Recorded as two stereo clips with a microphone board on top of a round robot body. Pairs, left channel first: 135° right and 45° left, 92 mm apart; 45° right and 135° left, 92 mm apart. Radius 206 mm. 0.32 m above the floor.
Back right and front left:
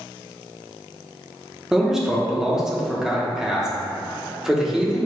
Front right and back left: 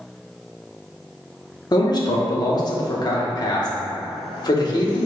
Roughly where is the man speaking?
Ahead right.